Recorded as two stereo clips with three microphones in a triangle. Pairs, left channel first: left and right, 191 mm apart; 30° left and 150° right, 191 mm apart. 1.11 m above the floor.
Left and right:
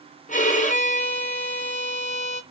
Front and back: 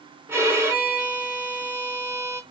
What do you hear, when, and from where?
0.3 s a violin: 135° left, 0.9 m